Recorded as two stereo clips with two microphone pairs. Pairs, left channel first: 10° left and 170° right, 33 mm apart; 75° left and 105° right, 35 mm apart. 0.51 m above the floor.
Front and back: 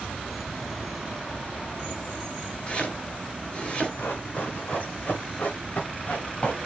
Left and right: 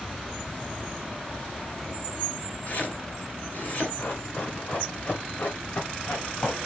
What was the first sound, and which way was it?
Chopping, 55° left.